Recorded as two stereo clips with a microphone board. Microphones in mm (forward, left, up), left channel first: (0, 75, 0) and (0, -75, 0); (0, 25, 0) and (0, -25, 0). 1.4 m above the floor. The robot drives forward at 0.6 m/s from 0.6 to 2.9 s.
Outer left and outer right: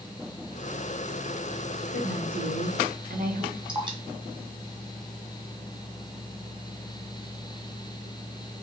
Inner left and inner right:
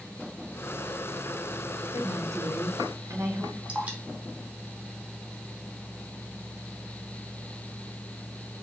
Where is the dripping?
30° right (ahead or behind), 1.6 m.